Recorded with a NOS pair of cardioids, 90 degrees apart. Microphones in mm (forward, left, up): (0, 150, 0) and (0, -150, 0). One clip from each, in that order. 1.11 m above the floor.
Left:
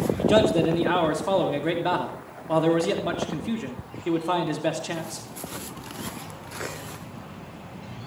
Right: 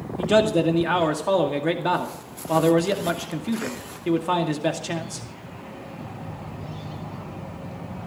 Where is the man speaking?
10° right, 2 m.